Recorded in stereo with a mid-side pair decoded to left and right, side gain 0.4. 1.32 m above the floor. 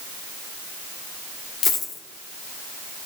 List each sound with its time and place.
1.6 s a dropped coin: 70° left, 2 m